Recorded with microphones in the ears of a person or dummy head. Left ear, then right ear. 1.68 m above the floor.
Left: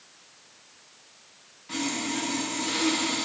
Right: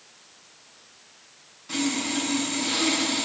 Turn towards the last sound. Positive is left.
turn(degrees=-5)  # may be behind; listen again after turning